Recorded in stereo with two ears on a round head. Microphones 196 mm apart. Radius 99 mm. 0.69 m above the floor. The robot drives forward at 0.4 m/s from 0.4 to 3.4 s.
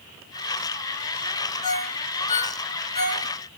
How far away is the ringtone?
About 5 m.